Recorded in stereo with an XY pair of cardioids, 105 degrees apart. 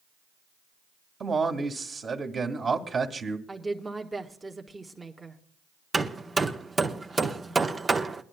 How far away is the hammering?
About 0.9 m.